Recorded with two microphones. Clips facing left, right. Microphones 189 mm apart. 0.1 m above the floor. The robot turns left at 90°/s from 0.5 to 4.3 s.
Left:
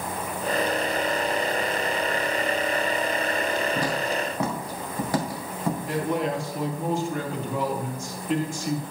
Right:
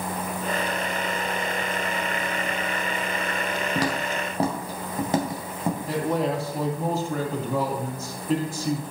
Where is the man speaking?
40° right (ahead or behind), 2.5 m.